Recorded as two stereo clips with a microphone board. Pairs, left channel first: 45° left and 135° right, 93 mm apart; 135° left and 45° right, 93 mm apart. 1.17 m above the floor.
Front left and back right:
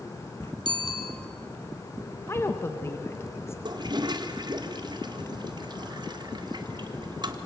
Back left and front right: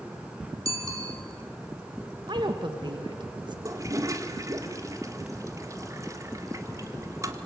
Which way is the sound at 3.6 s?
100° right.